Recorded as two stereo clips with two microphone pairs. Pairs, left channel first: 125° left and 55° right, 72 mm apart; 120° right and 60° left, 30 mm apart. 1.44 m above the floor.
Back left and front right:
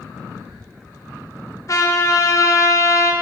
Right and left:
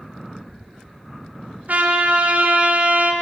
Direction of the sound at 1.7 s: 85° left.